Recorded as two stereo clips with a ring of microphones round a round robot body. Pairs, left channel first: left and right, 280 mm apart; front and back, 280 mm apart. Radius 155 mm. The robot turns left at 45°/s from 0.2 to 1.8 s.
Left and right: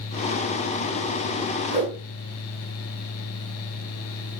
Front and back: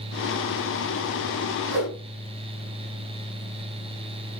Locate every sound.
1.7 s a whoosh: 155° right, 6 m; by 1.9 s 160° right, 6 m